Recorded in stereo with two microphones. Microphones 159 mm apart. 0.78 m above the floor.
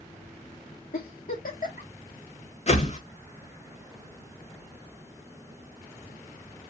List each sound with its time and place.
0.9 s a giggle: 70° left (ahead or behind), 1.3 m
2.7 s a whoosh: 50° left (ahead or behind), 0.9 m